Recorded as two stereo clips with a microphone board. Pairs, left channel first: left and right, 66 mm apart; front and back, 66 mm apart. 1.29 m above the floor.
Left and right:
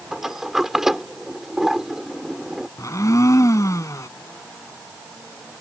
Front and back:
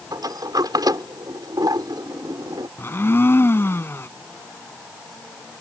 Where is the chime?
No chime in this recording.